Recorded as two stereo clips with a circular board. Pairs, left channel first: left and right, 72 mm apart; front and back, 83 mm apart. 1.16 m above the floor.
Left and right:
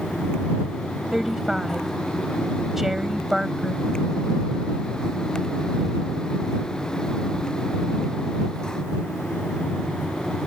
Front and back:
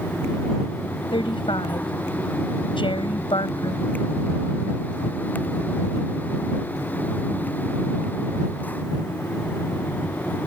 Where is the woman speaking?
5° right.